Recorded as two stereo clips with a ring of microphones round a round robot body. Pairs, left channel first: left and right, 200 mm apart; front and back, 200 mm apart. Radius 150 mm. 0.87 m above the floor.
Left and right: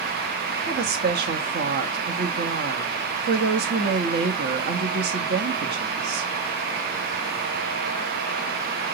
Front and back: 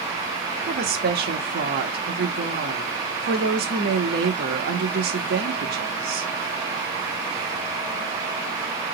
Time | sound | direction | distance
0.7 | a woman speaking | 135° right | 1.3 m